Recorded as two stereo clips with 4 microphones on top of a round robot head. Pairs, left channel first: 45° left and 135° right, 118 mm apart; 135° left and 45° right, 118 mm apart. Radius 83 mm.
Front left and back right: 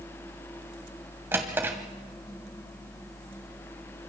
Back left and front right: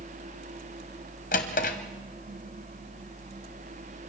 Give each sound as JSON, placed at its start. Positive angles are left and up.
{"t": 1.3, "sound": "a drawer", "azimuth_deg": 150, "distance_m": 1.5}